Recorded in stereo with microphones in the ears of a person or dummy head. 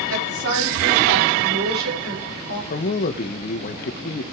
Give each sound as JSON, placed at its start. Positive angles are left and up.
{"t": 0.1, "sound": "a woman speaking", "side_deg": -80, "distance_m": 4.5}
{"t": 2.7, "sound": "a man speaking", "side_deg": 50, "distance_m": 1.7}